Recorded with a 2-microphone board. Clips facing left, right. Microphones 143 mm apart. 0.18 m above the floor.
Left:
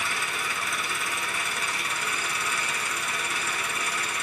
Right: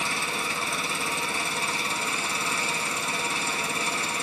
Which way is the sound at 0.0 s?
30° right (ahead or behind).